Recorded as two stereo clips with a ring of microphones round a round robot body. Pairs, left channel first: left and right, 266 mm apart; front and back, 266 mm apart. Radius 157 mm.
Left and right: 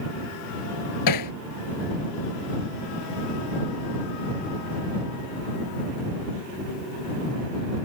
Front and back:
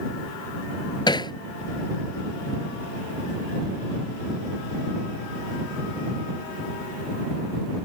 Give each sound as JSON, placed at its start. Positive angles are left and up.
{"t": 1.1, "sound": "hammering", "azimuth_deg": 75}